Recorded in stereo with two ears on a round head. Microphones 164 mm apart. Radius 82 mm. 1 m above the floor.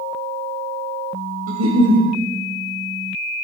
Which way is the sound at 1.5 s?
85° right.